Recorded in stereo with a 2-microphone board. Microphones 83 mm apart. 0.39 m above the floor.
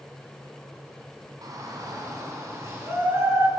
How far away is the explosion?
I don't hear an explosion.